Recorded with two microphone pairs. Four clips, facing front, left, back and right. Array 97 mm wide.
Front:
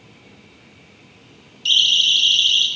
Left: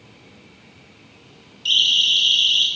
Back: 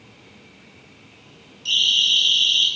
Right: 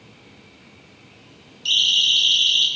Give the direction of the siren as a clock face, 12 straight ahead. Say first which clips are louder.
Left 1 dB, front 3 dB; 1 o'clock.